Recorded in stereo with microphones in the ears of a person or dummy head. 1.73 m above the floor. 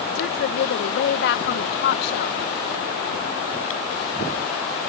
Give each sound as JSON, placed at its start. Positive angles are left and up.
{"t": 0.1, "sound": "a woman speaking", "side_deg": 60}